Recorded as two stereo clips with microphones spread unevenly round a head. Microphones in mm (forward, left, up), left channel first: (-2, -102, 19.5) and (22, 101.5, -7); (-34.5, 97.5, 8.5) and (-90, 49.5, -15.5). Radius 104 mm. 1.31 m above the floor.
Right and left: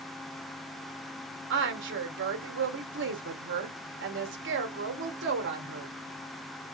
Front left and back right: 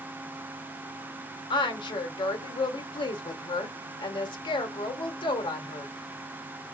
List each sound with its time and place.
1.5 s a woman speaking: 55° left, 1.0 m